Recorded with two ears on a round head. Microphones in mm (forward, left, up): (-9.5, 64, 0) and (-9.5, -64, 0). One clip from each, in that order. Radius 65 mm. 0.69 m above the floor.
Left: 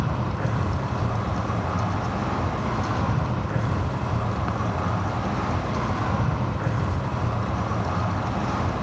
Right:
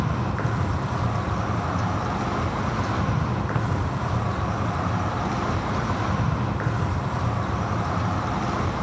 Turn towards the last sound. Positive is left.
turn(degrees=-60)  # may be behind; listen again after turning